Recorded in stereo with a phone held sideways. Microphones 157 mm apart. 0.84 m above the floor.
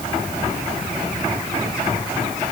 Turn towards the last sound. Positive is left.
No sound to turn to.